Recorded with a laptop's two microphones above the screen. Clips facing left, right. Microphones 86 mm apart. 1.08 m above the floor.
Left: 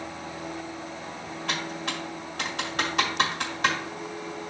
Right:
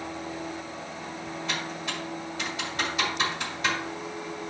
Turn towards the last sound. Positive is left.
turn(degrees=75)  # may be behind; listen again after turning